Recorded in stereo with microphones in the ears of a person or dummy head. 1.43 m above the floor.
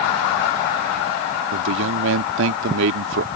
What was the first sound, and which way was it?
A man speaking, 75° right (ahead or behind).